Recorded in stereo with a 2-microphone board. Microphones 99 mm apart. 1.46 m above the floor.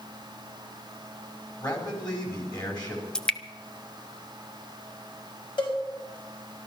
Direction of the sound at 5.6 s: 50° left (ahead or behind).